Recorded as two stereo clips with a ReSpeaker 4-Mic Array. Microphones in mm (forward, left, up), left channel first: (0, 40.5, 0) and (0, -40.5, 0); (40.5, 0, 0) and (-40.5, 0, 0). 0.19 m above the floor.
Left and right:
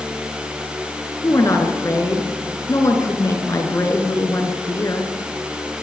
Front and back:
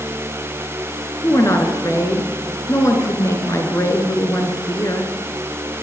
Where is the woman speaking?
45° left, 3 m.